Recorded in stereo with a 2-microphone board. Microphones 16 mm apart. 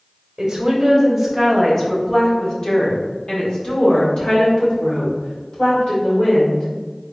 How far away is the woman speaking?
About 1.0 m.